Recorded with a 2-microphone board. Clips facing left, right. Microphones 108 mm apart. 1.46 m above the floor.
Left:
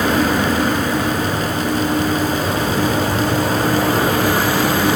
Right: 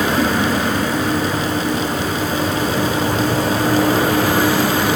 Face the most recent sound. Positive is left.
No sound to turn to.